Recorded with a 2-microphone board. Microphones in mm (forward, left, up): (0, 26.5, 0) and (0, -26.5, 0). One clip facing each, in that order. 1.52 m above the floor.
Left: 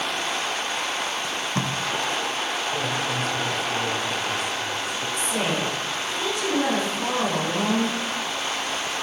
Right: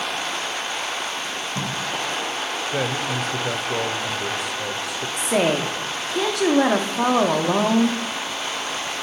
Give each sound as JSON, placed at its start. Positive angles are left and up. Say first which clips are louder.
{"t": 1.2, "sound": "tape being pulled", "louder": "left 1 dB", "side_deg": 45, "distance_m": 0.8}
{"t": 2.7, "sound": "a man speaking", "louder": "right 2 dB", "side_deg": -80, "distance_m": 0.9}
{"t": 5.2, "sound": "a woman speaking", "louder": "right 7 dB", "side_deg": -70, "distance_m": 0.8}